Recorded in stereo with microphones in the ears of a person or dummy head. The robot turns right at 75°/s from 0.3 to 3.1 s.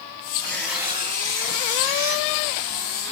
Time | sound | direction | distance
0.4 | tearing paper | 155° left | 3.5 m